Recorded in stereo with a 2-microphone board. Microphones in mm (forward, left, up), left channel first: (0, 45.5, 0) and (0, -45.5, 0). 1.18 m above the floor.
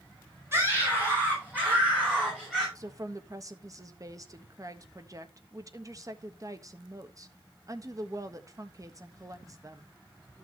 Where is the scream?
25° right (ahead or behind), 7 m; by 2.6 s 10° right (ahead or behind), 9 m.